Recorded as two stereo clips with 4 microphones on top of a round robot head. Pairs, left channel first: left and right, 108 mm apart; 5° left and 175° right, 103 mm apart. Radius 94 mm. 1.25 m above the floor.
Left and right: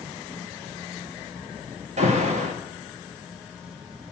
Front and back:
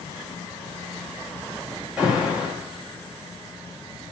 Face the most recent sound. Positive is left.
turn(degrees=-90)